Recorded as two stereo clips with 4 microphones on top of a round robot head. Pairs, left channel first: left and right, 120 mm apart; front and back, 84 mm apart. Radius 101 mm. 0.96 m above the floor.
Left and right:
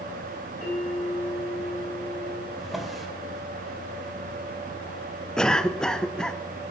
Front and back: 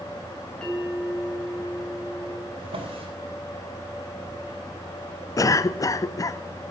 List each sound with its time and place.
0.6 s a bell: 80° left, 5.5 m
2.6 s a drawer: straight behind, 3 m
5.4 s a cough: 10° left, 0.7 m